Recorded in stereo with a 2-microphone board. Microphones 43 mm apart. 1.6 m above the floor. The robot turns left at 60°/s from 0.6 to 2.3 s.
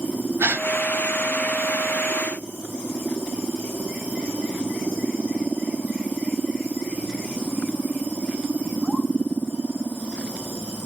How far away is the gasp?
About 0.8 m.